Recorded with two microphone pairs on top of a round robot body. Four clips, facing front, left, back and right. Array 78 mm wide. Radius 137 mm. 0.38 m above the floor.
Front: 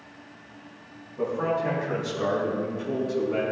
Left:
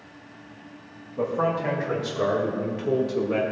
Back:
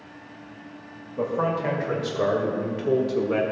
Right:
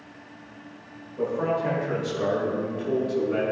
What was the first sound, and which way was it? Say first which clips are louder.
A man speaking: left 1 dB, back 1 dB; 140° left.